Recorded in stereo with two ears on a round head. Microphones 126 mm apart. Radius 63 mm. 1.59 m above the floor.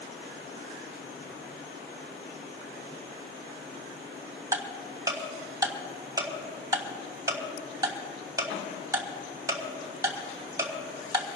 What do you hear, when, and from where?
4.5 s ticking: 25° right (ahead or behind), 1.6 m